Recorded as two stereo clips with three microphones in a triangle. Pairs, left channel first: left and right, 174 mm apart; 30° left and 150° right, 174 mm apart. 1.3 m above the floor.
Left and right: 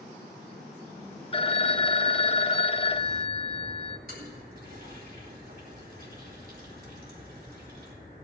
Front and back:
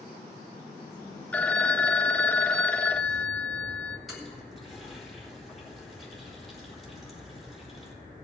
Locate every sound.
1.3 s a phone ringing: 105° left, 0.6 m
4.1 s a toilet flushing: 60° right, 3.5 m